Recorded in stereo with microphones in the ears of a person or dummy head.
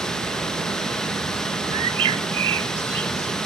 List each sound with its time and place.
0.0 s running water: centre (ahead or behind), 1.1 m
1.7 s a bird: 35° right (ahead or behind), 0.5 m